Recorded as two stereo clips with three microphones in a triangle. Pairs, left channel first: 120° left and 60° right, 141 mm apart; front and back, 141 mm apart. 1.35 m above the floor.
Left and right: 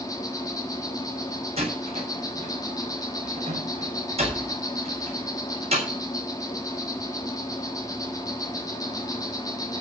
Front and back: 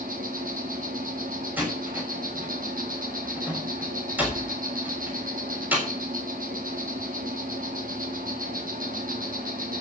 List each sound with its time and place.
0.0 s an insect: 175° right, 4 m
1.6 s a door slam: 100° right, 6 m